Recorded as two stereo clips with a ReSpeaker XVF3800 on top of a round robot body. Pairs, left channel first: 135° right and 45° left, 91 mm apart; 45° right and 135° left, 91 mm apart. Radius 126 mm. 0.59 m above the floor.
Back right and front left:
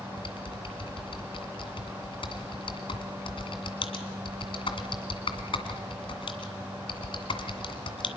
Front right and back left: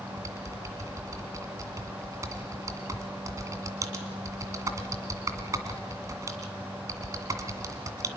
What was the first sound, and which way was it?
Typing on a keyboard, 170° right.